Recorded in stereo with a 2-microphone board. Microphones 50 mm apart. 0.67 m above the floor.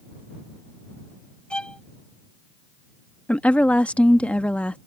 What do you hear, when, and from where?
1.5 s a violin: 20° left (ahead or behind)
3.3 s a woman speaking: 25° left (ahead or behind)